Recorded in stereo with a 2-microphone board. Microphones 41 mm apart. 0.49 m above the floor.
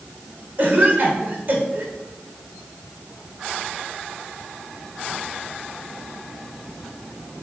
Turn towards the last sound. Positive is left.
turn(degrees=-50)  # may be behind; listen again after turning